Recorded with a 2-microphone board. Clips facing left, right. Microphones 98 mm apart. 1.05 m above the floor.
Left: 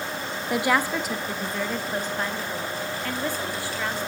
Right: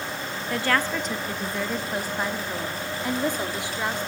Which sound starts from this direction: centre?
A woman speaking, at 0.5 s.